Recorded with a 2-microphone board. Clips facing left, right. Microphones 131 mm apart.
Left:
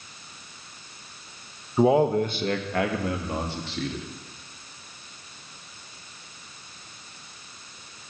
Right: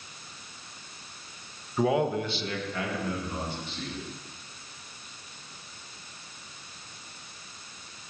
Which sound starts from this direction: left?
A man speaking, at 1.8 s.